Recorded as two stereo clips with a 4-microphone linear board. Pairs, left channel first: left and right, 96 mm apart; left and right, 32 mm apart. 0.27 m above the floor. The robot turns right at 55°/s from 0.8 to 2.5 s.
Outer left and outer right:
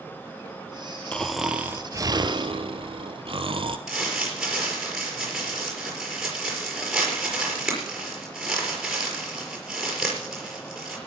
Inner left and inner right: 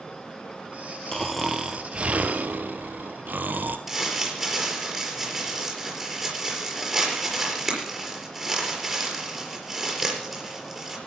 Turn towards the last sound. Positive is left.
turn(degrees=-5)  # may be behind; listen again after turning